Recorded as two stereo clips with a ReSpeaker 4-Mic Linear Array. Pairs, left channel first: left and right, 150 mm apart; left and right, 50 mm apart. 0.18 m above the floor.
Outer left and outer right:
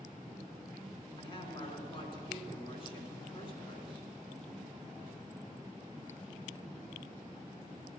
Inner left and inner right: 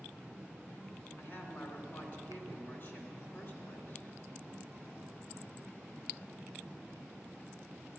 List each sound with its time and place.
1.2 s a woman speaking: 35° left (ahead or behind), 2 m